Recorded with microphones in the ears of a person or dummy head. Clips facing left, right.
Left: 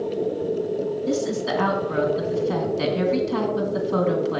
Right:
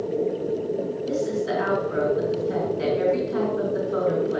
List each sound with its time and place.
1.1 s a woman speaking: 70° left (ahead or behind), 2.5 m